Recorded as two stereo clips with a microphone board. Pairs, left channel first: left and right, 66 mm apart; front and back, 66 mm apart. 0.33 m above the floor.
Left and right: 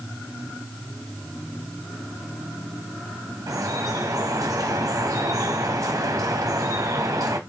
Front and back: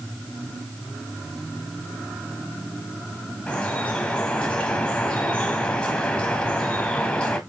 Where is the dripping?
70° right, 1.3 m.